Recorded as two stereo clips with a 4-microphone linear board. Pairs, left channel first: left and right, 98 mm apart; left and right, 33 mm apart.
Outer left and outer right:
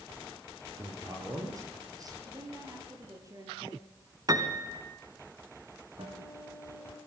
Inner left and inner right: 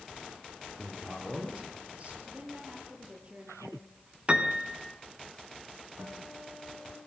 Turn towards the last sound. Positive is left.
turn(degrees=-55)  # may be behind; listen again after turning